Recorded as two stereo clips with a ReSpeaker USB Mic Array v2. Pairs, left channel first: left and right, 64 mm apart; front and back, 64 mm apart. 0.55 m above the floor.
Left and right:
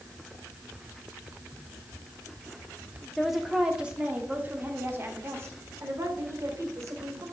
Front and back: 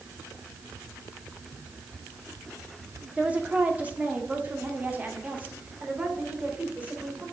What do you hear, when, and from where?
3.2 s a woman speaking: 175° left, 1.1 m; by 7.2 s 115° right, 2.5 m